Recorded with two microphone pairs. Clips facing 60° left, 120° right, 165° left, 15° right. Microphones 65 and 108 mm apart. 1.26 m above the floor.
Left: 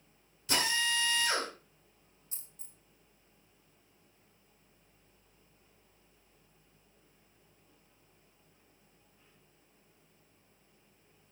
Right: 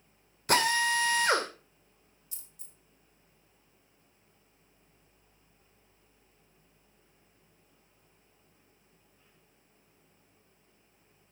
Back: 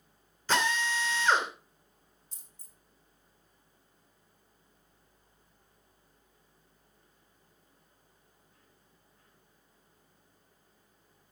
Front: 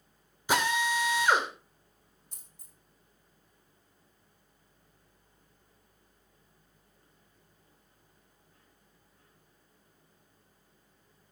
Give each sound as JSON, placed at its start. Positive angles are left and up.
{"t": 0.5, "sound": "a drill", "azimuth_deg": -95, "distance_m": 2.5}
{"t": 2.3, "sound": "a dropped coin", "azimuth_deg": 5, "distance_m": 2.5}